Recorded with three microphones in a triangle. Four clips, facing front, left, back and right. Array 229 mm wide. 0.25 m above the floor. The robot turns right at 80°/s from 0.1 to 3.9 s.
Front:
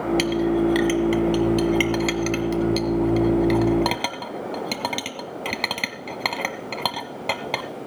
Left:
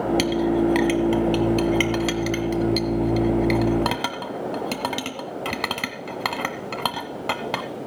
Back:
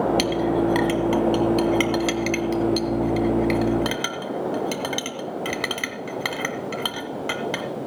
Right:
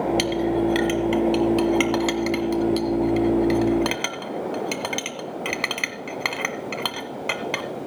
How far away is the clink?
About 0.9 m.